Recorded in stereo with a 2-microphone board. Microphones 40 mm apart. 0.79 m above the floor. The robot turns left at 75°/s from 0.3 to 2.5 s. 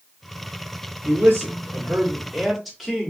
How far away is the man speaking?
About 1.8 m.